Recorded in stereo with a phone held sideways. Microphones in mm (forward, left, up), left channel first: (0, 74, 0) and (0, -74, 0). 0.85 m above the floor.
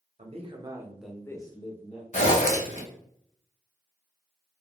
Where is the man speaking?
50° right (ahead or behind), 0.7 m; by 2.0 s 50° left (ahead or behind), 0.7 m.